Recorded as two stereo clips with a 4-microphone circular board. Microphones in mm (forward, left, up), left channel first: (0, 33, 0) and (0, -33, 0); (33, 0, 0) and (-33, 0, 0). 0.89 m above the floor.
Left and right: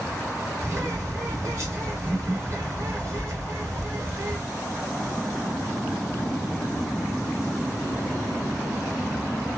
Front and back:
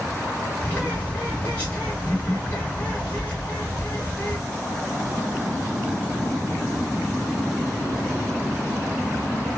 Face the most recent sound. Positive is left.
turn(degrees=-65)